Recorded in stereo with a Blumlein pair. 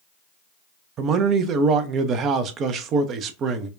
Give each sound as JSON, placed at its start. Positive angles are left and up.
{"t": 1.0, "sound": "a man speaking", "azimuth_deg": -30, "distance_m": 0.5}